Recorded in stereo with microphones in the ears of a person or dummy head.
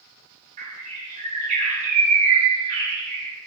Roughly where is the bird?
Right.